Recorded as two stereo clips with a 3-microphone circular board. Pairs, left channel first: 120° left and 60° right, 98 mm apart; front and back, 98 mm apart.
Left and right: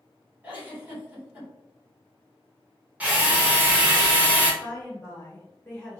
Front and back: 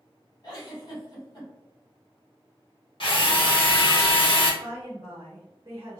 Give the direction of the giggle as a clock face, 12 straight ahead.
12 o'clock.